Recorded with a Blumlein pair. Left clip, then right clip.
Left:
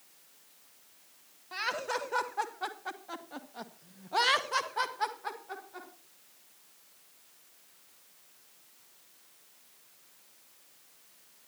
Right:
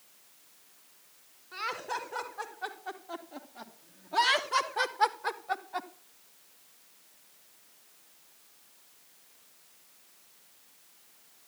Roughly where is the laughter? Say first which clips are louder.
Left 2 dB; ahead left.